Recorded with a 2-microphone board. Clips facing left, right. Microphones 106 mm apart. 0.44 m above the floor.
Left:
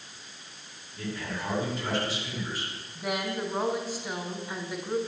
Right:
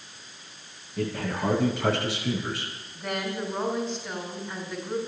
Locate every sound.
1.0 s a man speaking: 80° right, 7.5 m
3.0 s a woman speaking: 5° left (ahead or behind), 5.5 m